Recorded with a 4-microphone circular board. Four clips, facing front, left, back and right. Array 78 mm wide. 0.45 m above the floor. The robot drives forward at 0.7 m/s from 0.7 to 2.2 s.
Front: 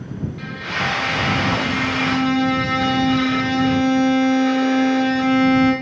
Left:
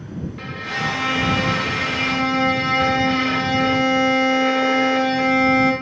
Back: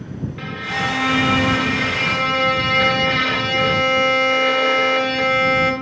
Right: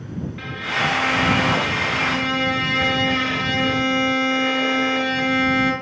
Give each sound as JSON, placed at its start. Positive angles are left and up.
{"t": 0.4, "sound": "a violin", "azimuth_deg": -160, "distance_m": 1.3}